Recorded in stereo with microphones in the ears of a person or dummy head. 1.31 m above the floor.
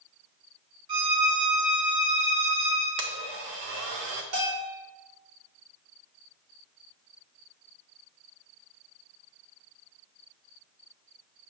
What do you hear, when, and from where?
0.9 s a violin: 30° right (ahead or behind), 3 m
3.0 s a blender: 55° right (ahead or behind), 0.8 m
4.3 s a bell: 70° right (ahead or behind), 3.5 m